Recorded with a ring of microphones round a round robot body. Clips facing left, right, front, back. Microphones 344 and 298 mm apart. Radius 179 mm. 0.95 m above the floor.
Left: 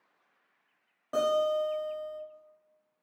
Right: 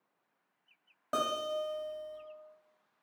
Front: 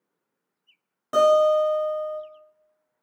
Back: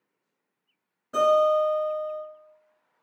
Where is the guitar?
30° right, 1.1 m.